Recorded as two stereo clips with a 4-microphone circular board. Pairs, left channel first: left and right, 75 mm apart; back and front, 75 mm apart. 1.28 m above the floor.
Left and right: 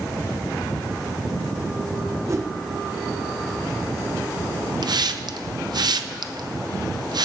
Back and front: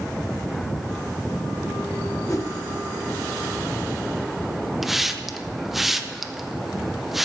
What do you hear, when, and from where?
2.3 s a whoosh: 135° right, 0.9 m
4.8 s a hiss: 85° right, 0.7 m